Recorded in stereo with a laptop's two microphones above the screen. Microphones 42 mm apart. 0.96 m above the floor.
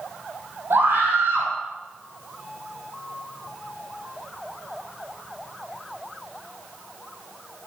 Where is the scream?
70° right (ahead or behind), 8 m.